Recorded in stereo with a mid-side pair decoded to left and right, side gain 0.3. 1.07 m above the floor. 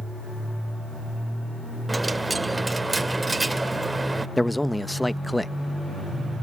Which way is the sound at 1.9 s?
25° right.